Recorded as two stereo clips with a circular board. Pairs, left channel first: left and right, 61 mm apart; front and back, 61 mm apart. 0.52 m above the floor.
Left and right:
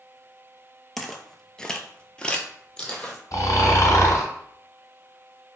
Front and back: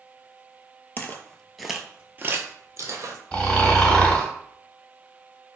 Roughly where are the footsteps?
Ahead.